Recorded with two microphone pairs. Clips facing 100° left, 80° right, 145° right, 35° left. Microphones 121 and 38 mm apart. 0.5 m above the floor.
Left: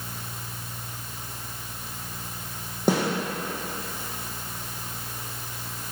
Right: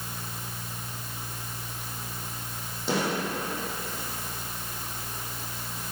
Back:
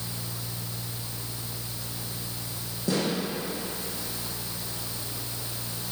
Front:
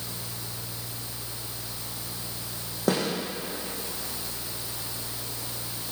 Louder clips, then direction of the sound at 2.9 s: Left 5 dB, front 2 dB; 65° left.